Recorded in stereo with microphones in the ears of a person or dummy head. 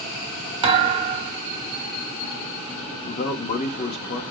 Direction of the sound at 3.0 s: 45° left (ahead or behind).